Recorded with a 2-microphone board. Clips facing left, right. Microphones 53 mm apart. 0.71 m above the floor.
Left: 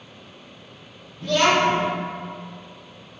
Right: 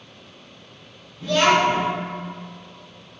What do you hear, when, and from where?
1.2 s a child speaking: 5° right (ahead or behind), 0.7 m